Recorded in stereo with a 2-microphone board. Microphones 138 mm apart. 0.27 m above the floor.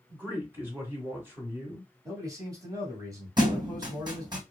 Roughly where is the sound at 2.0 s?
Right.